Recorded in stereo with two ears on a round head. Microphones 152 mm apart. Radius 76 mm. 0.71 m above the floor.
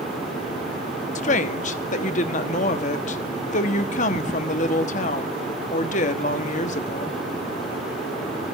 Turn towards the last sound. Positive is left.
turn(degrees=45)  # may be behind; listen again after turning